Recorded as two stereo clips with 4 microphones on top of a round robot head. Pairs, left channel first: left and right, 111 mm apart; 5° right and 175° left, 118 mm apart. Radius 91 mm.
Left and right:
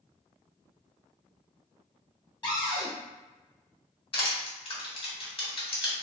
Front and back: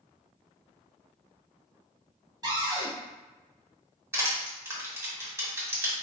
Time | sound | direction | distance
2.4 | a cupboard door | 125° left | 1.7 m
4.1 | crushing | 110° left | 1.8 m